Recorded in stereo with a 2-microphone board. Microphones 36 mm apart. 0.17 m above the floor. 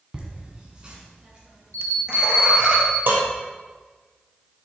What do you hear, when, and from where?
0.1 s laughter: 25° right (ahead or behind), 1.6 m
1.7 s a bell: 85° right, 0.6 m
3.1 s dishes clattering: 65° right (ahead or behind), 2.5 m